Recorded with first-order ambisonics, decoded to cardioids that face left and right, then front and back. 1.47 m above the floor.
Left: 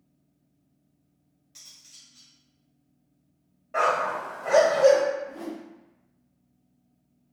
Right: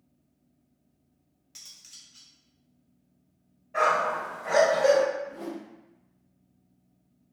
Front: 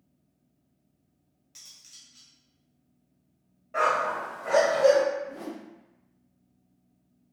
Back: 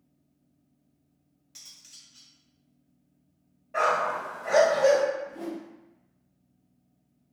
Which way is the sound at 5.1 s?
40° left.